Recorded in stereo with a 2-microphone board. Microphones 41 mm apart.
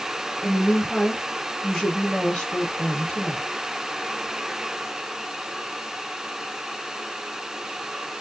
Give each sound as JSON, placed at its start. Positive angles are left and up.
{"t": 0.4, "sound": "a woman speaking", "side_deg": 10, "distance_m": 2.0}